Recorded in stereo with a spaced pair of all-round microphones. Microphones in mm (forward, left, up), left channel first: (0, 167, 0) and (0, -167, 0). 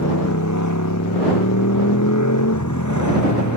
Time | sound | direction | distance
0.0 | a motorcycle | 60° left (ahead or behind) | ?